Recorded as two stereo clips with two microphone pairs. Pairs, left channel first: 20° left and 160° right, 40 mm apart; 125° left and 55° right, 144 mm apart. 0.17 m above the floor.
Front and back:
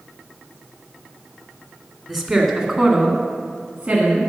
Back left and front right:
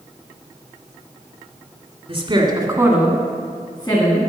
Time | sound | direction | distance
2.1 | a woman speaking | 65° right | 1.8 m